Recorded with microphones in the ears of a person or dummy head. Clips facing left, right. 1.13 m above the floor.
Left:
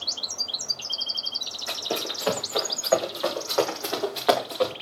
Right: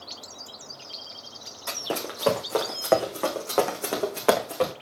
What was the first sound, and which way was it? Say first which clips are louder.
Running footsteps: even; 70° right (ahead or behind).